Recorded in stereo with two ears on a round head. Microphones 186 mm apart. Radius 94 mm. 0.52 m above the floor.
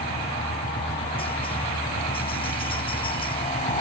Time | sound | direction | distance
0.0 | a helicopter | 25° left (ahead or behind) | ?